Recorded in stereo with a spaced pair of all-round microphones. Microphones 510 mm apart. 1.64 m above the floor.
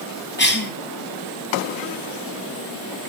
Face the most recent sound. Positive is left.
turn(degrees=20)  # may be behind; listen again after turning